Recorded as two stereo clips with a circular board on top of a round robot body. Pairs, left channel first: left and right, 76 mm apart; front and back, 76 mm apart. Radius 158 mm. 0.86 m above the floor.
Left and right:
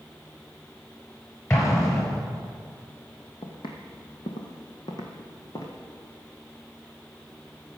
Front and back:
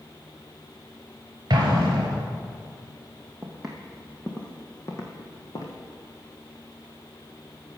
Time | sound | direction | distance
1.5 | an explosion | 145° left | 3 m
3.4 | footsteps | 100° left | 1.5 m